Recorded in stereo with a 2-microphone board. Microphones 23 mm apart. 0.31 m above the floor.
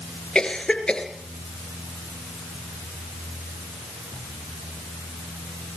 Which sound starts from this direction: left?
A cough, at 0.3 s.